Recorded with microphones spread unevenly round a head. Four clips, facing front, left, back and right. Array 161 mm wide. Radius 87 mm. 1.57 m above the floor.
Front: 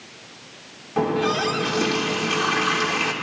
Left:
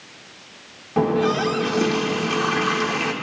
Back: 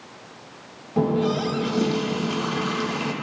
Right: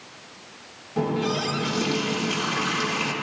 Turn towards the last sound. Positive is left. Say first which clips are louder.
# left 6 dB, even
turn(degrees=105)